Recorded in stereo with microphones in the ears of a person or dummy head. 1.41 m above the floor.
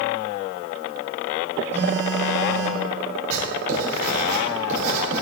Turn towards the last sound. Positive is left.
turn(degrees=-45)  # may be behind; listen again after turning